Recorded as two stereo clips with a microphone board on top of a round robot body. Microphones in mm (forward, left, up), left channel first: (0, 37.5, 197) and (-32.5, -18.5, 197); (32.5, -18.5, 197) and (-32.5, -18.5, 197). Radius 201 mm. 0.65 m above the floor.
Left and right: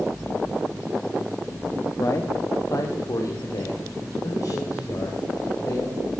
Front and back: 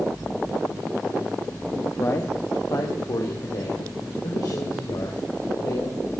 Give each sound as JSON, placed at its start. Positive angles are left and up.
{"t": 2.0, "sound": "a man speaking", "azimuth_deg": 35, "distance_m": 1.7}